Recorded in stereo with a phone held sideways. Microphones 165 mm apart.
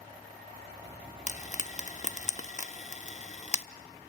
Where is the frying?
45° left (ahead or behind), 0.6 m.